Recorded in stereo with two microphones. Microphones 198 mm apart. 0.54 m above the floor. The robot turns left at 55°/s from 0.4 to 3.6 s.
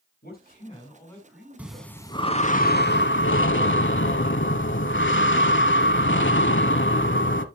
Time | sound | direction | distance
0.2 | a man speaking | 50° left | 5 m
1.6 | breathing | 170° right | 0.8 m